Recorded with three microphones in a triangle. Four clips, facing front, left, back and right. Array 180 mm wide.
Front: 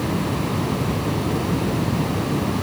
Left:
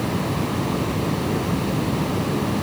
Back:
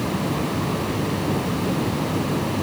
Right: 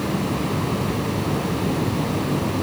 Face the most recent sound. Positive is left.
No sound to turn to.